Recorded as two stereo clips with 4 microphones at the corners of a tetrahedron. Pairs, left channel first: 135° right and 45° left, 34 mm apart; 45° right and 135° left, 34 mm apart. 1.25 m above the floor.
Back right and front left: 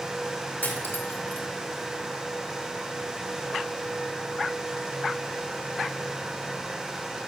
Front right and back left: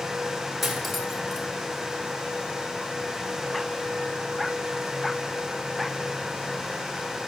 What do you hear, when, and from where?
0.6 s cutlery clinking: 135° right, 2 m